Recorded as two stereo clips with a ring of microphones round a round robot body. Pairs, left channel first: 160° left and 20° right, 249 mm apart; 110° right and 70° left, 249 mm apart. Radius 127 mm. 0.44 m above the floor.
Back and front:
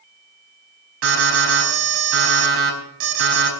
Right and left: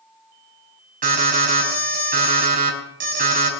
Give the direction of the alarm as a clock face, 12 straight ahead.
12 o'clock.